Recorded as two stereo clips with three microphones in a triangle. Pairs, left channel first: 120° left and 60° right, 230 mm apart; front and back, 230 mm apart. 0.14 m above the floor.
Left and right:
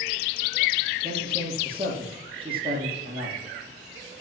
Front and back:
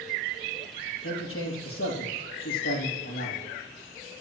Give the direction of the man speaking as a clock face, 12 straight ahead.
12 o'clock.